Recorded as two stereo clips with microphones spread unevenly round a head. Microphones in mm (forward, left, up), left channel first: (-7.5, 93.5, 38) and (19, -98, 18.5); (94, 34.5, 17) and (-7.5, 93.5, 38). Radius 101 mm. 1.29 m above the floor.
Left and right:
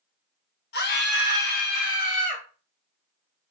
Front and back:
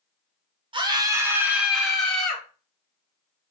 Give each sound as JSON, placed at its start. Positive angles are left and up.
{"t": 0.7, "sound": "a scream", "azimuth_deg": 105, "distance_m": 0.7}